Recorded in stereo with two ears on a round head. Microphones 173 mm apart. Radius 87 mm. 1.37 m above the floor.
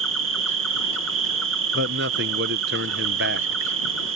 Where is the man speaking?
60° right (ahead or behind).